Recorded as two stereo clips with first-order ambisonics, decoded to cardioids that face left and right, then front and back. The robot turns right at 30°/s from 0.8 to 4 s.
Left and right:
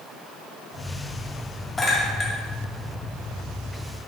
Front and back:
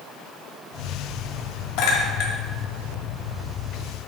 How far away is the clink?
About 1.7 m.